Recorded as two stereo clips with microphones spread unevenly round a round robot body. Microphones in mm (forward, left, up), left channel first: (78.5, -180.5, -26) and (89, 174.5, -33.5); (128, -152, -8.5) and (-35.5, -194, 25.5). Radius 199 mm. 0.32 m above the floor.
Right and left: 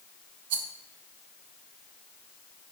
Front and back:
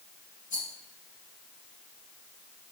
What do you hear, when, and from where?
0.5 s a rattle: 70° left, 1.1 m